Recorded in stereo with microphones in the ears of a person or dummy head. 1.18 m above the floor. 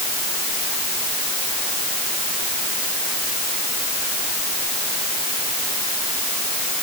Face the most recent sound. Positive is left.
No sound to turn to.